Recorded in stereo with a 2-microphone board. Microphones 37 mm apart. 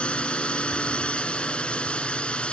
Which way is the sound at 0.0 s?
30° left (ahead or behind).